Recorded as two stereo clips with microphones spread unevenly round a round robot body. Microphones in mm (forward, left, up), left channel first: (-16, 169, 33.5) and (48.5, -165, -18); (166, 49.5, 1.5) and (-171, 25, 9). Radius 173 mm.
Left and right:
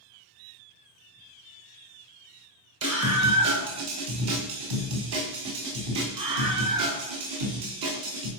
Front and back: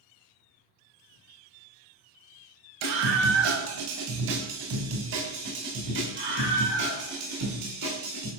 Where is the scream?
130° right, 4.5 m; by 8.3 s 110° right, 8 m.